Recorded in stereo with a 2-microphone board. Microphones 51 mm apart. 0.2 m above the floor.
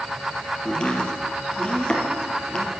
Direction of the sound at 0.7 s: 15° left (ahead or behind).